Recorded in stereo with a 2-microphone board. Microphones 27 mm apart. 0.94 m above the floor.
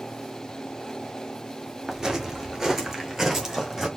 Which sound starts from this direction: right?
Footsteps, at 1.9 s.